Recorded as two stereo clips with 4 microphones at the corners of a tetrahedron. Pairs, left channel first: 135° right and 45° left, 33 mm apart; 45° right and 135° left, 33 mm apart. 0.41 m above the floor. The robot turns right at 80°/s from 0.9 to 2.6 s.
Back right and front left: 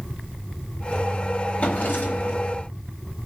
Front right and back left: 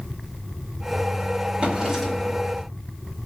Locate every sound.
1.6 s a drawer: 175° right, 1.7 m; by 2.4 s 110° right, 1.7 m